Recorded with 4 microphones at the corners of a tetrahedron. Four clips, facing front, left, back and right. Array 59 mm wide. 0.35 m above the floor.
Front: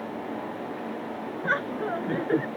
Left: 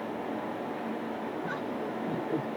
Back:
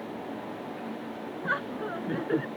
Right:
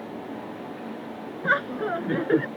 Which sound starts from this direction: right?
Laughter, at 1.4 s.